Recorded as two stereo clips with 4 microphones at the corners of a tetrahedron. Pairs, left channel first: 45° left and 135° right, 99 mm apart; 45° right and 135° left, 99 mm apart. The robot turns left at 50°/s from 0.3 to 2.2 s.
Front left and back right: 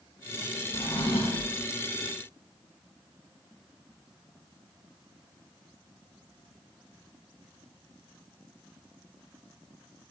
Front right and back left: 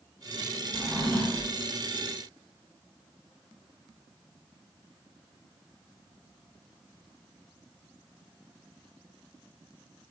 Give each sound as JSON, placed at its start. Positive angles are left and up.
{"t": 0.7, "sound": "a drawer", "azimuth_deg": 60, "distance_m": 2.0}